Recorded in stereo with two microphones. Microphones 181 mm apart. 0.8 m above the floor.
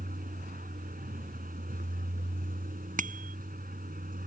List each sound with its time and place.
0.0 s a vehicle: 50° right (ahead or behind)
3.0 s a bicycle bell: 50° right (ahead or behind)